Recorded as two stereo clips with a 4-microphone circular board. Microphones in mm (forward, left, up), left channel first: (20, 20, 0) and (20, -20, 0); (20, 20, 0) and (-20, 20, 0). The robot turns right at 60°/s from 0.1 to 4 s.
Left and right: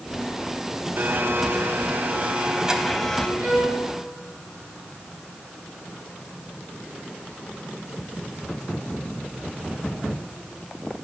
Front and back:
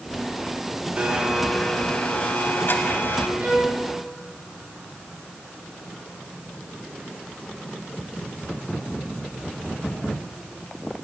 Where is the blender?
120° right, 1.3 m; by 3.3 s 20° left, 1.3 m.